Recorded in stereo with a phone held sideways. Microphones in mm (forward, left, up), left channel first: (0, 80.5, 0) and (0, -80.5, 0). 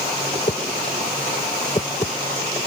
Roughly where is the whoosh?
Left.